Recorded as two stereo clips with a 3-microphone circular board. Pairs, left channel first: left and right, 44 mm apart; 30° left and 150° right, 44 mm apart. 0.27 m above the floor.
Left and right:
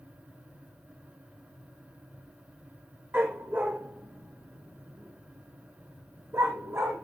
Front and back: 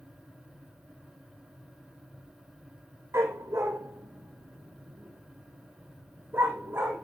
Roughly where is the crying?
No crying in this recording.